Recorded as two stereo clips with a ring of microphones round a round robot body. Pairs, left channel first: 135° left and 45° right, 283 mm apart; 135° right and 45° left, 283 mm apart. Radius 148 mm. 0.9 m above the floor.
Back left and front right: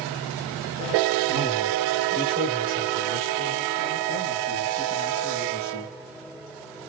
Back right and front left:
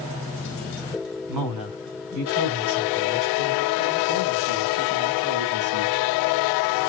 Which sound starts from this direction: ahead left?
A man speaking, at 1.3 s.